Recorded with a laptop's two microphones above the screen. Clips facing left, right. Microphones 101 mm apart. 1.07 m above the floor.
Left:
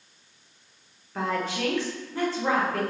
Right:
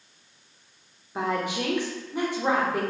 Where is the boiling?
No boiling in this recording.